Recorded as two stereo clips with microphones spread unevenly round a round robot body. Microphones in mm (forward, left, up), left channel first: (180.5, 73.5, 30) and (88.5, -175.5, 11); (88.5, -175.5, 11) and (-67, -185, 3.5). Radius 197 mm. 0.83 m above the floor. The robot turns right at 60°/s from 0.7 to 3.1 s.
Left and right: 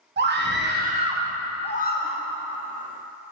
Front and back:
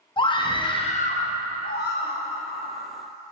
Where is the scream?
60° right, 1.0 m; by 2.2 s 30° left, 1.0 m.